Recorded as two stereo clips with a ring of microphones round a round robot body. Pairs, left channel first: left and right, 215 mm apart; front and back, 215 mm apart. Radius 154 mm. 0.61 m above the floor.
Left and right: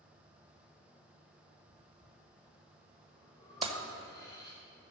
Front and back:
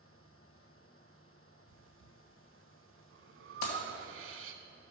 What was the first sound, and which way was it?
Breathing, 165° left.